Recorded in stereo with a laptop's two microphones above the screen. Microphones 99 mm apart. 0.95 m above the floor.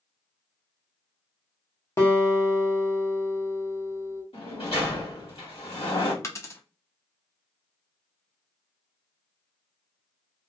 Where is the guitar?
30° left (ahead or behind), 0.5 m.